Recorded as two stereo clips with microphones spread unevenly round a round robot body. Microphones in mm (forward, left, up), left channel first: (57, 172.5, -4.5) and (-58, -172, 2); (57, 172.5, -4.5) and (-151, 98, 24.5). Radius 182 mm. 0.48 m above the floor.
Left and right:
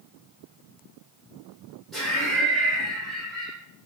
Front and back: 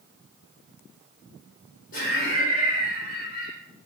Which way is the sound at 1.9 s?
15° right.